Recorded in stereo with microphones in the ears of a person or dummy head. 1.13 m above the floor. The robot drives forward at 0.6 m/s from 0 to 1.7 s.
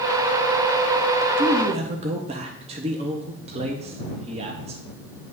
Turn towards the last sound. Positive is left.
turn(degrees=-35)  # may be behind; listen again after turning